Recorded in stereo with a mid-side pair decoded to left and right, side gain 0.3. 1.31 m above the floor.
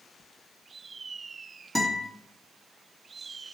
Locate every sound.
1.8 s a guitar: 5° right, 1.9 m